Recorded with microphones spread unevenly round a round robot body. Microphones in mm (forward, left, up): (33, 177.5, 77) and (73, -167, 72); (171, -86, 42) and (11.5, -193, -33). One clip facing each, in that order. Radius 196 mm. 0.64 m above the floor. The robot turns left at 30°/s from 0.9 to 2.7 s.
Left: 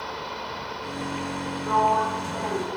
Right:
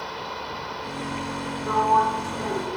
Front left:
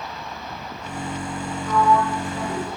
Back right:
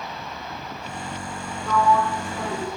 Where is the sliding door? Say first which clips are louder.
Right 1 dB, front left 1 dB; 160° left, 0.9 m; by 2.7 s 130° left, 0.9 m.